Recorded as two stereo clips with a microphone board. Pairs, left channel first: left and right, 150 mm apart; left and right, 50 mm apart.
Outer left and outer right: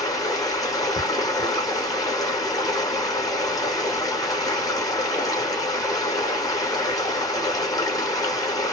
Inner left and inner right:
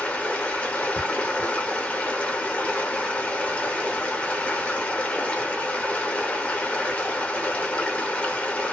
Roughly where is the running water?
Left.